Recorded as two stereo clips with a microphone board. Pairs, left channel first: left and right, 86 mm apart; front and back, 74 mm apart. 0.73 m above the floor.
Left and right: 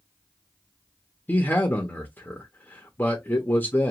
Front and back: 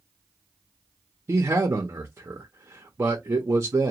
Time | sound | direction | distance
1.3 | a man speaking | 145° left | 0.7 m